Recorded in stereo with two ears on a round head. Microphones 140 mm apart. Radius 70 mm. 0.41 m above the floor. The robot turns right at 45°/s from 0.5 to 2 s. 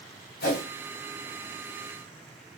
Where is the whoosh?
65° left (ahead or behind), 1.6 m; by 0.6 s 60° left (ahead or behind), 1.6 m.